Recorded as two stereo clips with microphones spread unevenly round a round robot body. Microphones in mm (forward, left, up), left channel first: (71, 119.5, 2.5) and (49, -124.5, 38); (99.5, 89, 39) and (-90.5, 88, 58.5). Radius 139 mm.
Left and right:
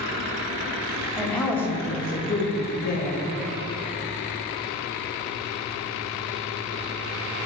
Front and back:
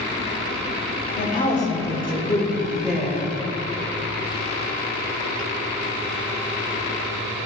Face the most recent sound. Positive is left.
turn(degrees=100)